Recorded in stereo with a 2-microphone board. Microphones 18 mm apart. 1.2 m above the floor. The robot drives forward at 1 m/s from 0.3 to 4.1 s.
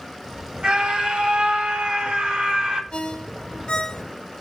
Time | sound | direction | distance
0.6 | a scream | 70° right (ahead or behind) | 3.5 m
2.9 | a ringtone | 75° left (ahead or behind) | 1.2 m